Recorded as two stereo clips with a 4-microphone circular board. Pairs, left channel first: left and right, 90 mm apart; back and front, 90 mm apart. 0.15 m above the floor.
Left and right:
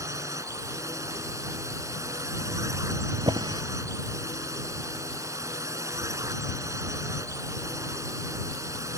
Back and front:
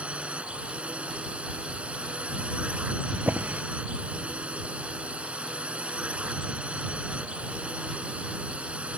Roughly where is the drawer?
Right.